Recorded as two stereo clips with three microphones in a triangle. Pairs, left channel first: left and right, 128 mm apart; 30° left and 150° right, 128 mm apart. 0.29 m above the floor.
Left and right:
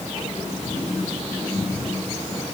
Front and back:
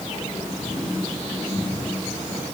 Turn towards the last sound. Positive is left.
No sound to turn to.